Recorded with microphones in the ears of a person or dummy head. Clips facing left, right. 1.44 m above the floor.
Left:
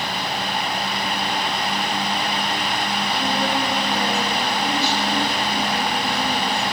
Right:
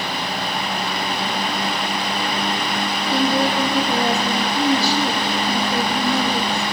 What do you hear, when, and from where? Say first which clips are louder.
3.1 s a woman speaking: right 6 dB; 35° right (ahead or behind), 2.5 m